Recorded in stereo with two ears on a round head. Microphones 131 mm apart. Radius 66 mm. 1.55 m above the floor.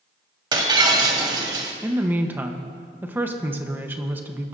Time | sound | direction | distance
0.5 | breaking glass | 30° right (ahead or behind) | 1.6 m
1.8 | a woman speaking | 15° right (ahead or behind) | 1.1 m